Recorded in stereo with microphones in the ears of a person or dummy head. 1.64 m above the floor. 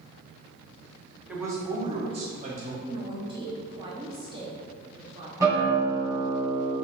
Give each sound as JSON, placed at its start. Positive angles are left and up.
{"t": 1.3, "sound": "a man speaking", "side_deg": 0, "distance_m": 1.2}
{"t": 2.8, "sound": "a woman speaking", "side_deg": -20, "distance_m": 0.8}
{"t": 5.4, "sound": "a guitar", "side_deg": -5, "distance_m": 1.8}